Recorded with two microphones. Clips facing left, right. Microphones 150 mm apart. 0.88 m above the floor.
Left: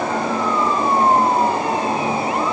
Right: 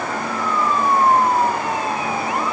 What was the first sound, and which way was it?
Only background noise.